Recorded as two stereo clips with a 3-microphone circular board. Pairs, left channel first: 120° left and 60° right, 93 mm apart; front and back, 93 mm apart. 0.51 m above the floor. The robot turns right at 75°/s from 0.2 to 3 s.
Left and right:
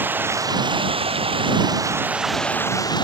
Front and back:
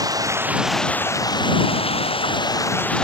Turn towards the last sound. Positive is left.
turn(degrees=80)